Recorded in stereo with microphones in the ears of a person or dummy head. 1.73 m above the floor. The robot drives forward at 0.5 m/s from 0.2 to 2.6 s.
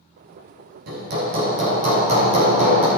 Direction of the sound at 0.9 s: 50° right (ahead or behind).